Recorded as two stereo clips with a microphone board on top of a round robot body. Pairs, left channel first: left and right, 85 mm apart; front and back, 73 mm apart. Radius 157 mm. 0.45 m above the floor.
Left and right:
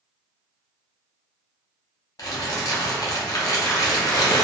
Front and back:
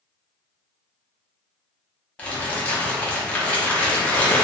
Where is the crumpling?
65° left, 0.9 m.